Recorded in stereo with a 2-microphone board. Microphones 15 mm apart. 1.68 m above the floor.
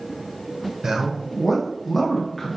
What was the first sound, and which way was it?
A man speaking, 40° right (ahead or behind).